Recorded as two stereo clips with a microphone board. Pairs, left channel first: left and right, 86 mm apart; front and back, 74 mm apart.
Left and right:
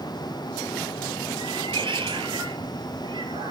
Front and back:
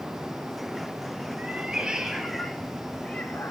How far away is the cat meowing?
About 2.5 m.